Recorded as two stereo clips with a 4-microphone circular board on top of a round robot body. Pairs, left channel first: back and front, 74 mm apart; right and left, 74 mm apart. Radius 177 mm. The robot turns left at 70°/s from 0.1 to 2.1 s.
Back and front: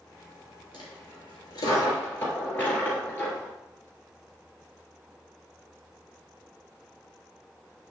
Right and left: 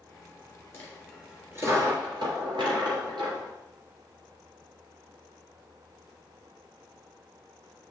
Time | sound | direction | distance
0.7 | a dropped coin | 150° right | 1.7 m